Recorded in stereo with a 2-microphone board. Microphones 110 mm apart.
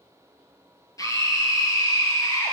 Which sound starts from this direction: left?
A scream, at 1.0 s.